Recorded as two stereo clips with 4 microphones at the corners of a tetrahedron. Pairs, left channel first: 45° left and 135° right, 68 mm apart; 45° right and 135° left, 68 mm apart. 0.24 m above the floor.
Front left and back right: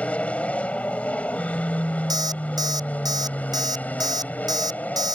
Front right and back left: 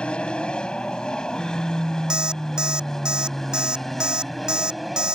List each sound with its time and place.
0.0 s an aircraft: 5° left; by 5.2 s 45° left
2.1 s an alarm clock: 150° right